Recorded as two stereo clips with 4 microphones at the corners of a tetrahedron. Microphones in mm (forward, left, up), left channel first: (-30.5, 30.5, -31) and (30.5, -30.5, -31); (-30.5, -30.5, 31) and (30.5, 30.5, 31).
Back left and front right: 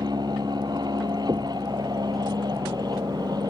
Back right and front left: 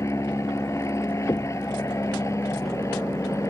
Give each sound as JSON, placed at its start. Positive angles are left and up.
{"t": 0.0, "sound": "an aircraft", "azimuth_deg": -80}
{"t": 1.3, "sound": "knocking", "azimuth_deg": -90}